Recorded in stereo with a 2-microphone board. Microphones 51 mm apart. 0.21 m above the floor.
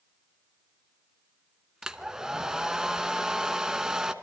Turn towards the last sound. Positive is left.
turn(degrees=-10)  # may be behind; listen again after turning